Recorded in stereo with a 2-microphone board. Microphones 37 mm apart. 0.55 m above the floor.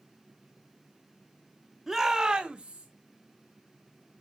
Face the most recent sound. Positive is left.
turn(degrees=-30)  # may be behind; listen again after turning